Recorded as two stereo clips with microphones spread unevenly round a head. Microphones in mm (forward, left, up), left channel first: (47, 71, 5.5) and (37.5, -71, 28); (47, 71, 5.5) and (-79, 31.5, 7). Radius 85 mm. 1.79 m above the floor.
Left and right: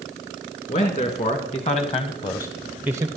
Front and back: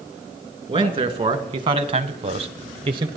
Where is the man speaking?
140° left, 2.5 m; by 3.1 s 120° right, 0.7 m.